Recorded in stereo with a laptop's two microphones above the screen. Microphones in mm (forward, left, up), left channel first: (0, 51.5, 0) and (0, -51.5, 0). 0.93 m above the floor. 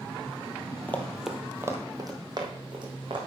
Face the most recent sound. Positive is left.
turn(degrees=-50)  # may be behind; listen again after turning